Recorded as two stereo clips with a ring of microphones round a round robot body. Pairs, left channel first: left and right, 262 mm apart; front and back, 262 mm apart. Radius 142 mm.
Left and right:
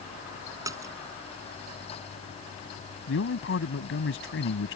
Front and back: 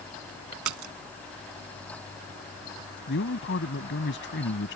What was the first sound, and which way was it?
A splash, 170° right.